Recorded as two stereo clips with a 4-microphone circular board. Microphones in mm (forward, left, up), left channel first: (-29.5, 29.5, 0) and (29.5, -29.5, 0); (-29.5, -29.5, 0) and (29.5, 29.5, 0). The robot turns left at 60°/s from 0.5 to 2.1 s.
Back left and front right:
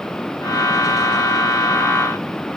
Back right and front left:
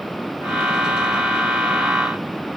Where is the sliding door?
I don't hear a sliding door.